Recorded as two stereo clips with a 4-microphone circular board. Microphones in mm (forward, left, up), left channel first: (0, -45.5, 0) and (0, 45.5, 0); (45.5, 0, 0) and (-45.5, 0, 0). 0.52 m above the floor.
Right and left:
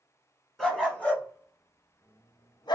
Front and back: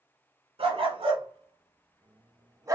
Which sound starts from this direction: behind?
A dog barking, at 0.6 s.